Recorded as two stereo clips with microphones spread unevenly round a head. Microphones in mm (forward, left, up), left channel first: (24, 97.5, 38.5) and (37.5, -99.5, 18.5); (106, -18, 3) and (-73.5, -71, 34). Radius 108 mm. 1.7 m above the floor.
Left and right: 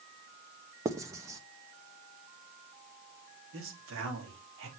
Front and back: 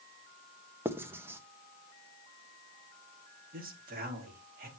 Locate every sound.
0.8 s writing: 155° right, 1.0 m
3.5 s a man speaking: 120° right, 4 m